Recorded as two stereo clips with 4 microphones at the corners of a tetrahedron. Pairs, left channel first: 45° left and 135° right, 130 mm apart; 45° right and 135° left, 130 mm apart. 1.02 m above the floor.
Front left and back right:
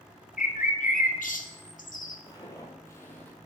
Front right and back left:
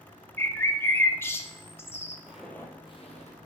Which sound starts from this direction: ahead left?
A bird, at 0.4 s.